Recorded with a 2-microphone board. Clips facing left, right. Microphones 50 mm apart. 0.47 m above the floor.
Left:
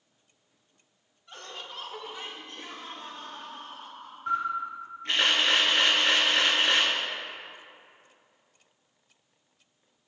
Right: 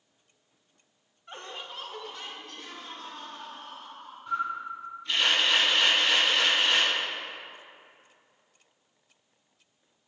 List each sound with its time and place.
1.3 s laughter: 30° right (ahead or behind), 0.9 m; by 4.2 s 45° left (ahead or behind), 3 m
4.3 s a camera shutter: 55° left (ahead or behind), 3 m